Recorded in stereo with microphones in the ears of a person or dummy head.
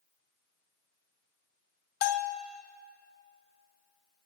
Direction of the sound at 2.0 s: 40° left (ahead or behind).